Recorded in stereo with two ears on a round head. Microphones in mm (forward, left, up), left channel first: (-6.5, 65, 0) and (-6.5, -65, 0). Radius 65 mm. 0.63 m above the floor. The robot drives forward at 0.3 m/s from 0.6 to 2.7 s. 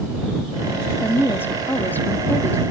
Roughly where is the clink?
I don't hear a clink.